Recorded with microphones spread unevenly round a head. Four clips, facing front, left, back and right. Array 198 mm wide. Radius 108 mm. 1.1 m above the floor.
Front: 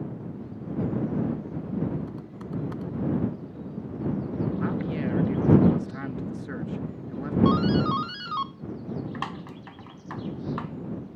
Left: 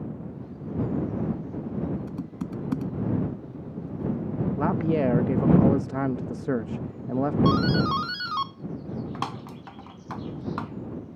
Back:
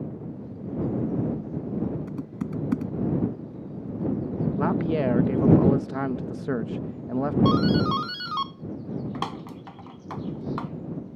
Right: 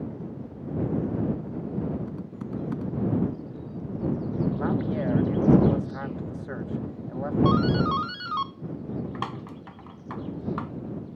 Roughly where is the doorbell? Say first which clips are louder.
Right 3 dB, front 1 dB; behind.